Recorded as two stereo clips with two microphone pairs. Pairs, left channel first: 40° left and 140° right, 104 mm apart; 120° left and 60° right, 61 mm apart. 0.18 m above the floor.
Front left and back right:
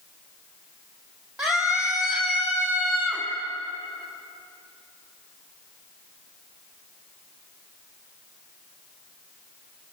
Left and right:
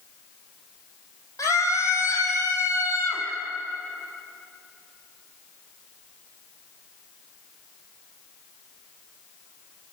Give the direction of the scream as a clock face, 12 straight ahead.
7 o'clock.